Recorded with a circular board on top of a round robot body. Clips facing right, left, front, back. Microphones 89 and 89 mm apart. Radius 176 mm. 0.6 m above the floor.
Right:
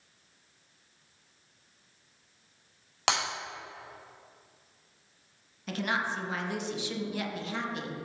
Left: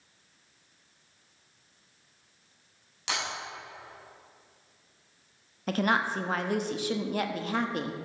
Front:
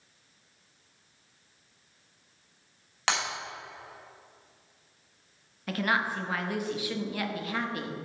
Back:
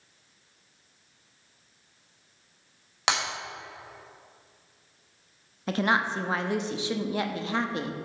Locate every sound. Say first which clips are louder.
3.1 s breaking glass: right 5 dB, back 2 dB; 105° right, 2.5 m
5.7 s a woman speaking: left 5 dB, back 3 dB; 120° left, 0.9 m